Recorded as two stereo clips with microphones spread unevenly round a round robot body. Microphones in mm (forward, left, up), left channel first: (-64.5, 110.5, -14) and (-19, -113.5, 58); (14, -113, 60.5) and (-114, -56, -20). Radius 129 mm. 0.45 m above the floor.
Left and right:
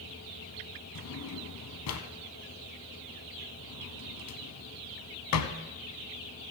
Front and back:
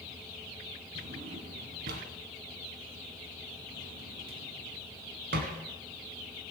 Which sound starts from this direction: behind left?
A drawer, at 0.9 s.